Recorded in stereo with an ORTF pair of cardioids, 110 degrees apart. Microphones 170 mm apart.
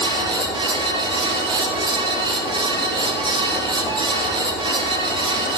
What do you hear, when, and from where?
0.0 s a fan: 25° right, 1.4 m